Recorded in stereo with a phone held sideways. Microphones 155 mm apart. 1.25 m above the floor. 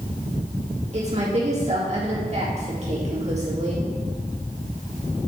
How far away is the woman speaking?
About 2 m.